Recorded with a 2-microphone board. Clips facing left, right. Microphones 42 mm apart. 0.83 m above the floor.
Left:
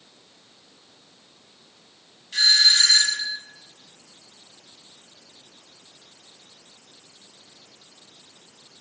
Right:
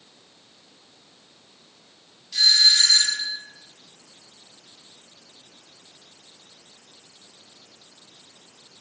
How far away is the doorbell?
About 8.5 m.